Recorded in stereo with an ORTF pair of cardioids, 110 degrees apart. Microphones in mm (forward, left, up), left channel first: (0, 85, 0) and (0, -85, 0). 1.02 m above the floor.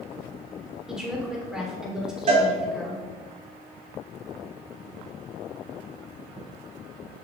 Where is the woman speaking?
5° right, 2.5 m.